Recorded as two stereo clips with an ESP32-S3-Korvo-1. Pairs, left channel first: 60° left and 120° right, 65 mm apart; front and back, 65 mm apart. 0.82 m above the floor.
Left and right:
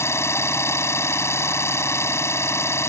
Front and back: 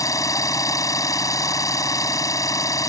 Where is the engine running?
15° left.